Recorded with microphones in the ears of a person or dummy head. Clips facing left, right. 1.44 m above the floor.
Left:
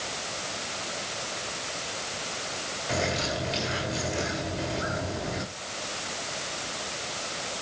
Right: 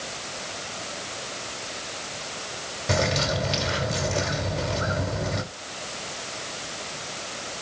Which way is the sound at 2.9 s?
70° right (ahead or behind).